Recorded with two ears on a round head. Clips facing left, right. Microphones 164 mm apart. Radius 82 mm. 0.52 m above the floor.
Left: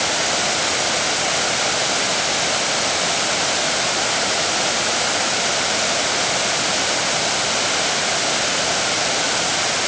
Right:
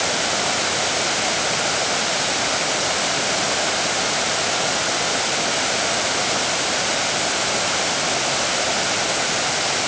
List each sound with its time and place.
Only background noise.